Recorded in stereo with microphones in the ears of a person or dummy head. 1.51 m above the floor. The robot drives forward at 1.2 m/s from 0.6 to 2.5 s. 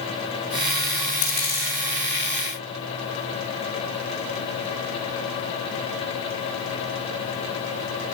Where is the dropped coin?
40° left (ahead or behind), 4 m; by 1.7 s 35° left (ahead or behind), 4.5 m.